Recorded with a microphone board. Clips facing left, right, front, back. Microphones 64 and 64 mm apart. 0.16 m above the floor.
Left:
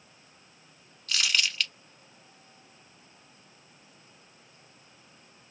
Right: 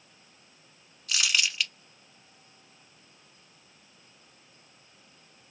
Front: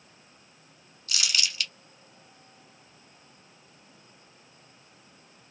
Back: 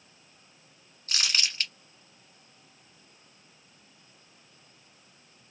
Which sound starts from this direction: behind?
Crumpling, at 1.1 s.